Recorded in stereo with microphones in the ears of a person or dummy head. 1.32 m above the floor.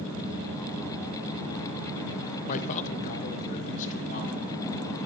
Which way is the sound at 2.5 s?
40° left (ahead or behind).